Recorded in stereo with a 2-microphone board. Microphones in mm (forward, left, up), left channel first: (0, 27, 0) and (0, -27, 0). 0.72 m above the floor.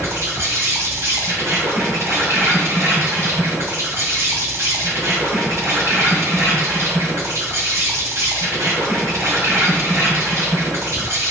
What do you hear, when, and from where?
0.0 s an insect: 70° right (ahead or behind), 2.5 m